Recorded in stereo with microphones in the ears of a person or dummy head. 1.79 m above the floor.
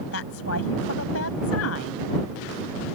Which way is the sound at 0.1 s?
85° left.